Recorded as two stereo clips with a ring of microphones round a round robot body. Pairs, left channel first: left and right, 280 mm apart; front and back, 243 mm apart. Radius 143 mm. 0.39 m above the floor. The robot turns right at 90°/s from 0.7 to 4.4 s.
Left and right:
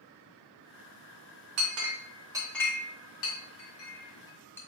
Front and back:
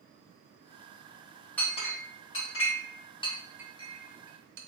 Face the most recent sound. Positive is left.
turn(degrees=170)